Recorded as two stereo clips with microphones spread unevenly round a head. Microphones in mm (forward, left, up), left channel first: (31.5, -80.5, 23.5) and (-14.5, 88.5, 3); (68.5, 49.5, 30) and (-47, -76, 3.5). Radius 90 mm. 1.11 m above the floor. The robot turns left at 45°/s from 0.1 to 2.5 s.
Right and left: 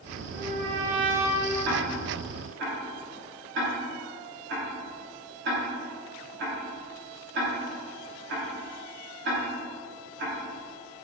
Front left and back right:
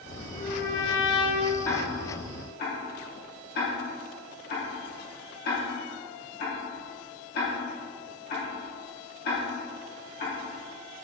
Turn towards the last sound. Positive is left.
turn(degrees=85)